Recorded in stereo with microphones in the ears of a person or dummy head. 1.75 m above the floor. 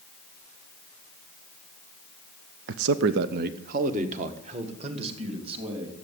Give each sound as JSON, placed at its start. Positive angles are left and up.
{"t": 2.7, "sound": "a man speaking", "side_deg": -60, "distance_m": 0.6}